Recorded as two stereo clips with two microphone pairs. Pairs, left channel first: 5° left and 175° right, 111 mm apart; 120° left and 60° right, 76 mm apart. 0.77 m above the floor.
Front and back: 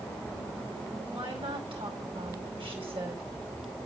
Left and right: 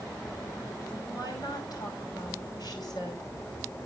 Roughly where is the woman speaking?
Behind left.